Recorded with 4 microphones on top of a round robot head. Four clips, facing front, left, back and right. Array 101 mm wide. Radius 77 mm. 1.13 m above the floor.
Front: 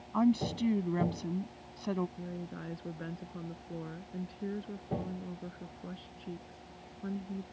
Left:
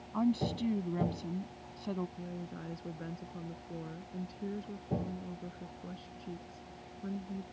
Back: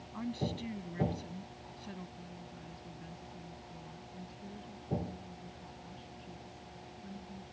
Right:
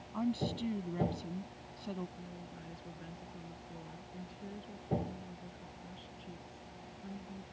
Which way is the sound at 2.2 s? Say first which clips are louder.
Left 6 dB, front 7 dB; 30° left.